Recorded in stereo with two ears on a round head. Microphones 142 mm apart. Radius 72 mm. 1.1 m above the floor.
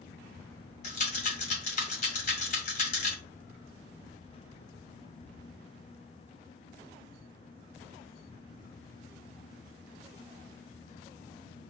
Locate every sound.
0.8 s a rattle: 50° left (ahead or behind), 1.8 m